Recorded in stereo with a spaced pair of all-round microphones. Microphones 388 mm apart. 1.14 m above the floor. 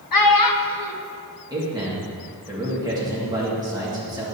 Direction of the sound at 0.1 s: 60° left (ahead or behind).